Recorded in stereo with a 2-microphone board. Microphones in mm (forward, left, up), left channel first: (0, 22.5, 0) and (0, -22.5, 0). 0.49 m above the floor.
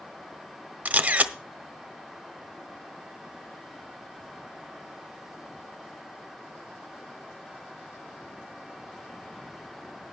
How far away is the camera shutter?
About 0.7 m.